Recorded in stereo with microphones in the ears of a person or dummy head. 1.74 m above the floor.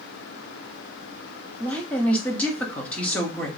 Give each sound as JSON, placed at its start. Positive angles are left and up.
{"t": 1.6, "sound": "a woman speaking", "side_deg": 5, "distance_m": 1.2}